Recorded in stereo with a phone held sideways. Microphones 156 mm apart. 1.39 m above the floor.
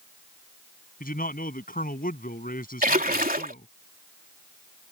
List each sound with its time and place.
1.0 s a man speaking: 65° left (ahead or behind)
2.8 s a splash: 65° right (ahead or behind)